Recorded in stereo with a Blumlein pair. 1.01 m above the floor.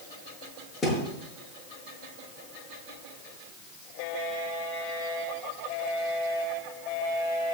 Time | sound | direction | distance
0.8 | a thud | 20° left | 7.5 m